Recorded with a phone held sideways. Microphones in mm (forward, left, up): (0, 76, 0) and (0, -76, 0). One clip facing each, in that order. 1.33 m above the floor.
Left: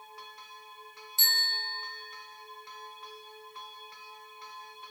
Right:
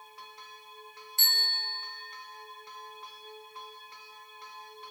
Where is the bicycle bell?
60° right (ahead or behind), 4 m.